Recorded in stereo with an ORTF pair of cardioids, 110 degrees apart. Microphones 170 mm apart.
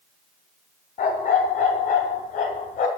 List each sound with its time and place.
1.0 s a dog barking: 55° left, 2.5 m